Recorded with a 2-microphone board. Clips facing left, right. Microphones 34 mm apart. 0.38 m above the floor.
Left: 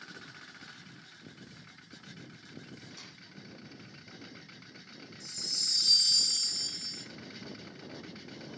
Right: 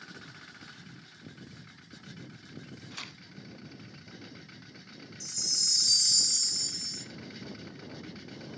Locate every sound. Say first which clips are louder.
2.9 s tearing paper: right 7 dB; 75° right (ahead or behind), 0.9 m
5.2 s a chime: right 2 dB; 40° left (ahead or behind), 1.0 m